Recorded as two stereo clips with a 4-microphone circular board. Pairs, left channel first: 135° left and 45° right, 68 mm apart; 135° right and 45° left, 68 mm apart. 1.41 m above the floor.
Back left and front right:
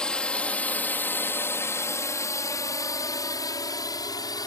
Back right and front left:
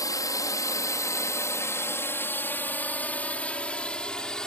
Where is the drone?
145° right; by 4.5 s 145° left.